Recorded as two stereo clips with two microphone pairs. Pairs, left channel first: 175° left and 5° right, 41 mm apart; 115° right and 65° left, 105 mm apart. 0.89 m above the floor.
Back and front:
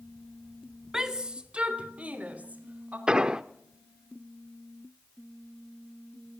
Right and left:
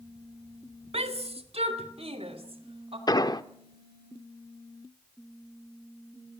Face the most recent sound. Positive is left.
turn(degrees=-70)